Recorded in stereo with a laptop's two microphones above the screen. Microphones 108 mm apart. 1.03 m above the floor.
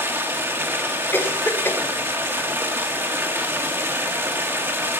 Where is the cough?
20° left (ahead or behind), 3 m.